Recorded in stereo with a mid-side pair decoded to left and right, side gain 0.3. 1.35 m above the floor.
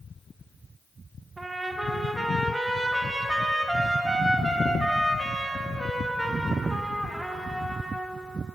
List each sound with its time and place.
1.4 s a trumpet: 25° right, 1.4 m